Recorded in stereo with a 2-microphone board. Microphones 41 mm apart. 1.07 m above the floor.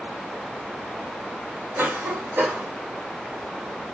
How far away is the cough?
About 1.5 m.